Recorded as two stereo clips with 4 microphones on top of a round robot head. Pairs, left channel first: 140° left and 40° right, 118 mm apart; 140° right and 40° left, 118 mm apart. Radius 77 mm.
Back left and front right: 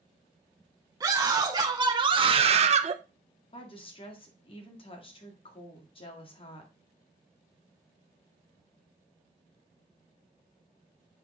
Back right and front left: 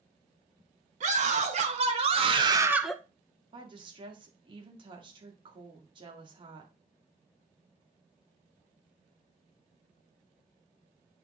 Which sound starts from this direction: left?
A woman speaking, at 3.5 s.